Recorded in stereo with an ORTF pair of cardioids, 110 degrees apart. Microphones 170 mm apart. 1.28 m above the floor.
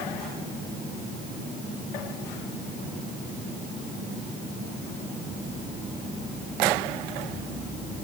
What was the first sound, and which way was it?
Only background noise.